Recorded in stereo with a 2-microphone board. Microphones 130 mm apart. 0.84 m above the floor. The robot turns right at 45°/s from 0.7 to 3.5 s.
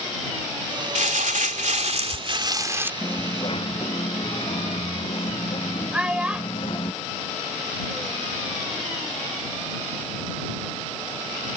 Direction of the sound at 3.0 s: 20° left (ahead or behind).